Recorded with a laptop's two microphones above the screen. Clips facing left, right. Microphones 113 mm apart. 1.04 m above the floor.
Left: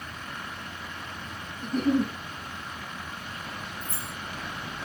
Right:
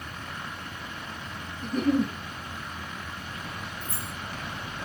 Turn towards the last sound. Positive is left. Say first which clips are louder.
# even
turn(degrees=15)  # may be behind; listen again after turning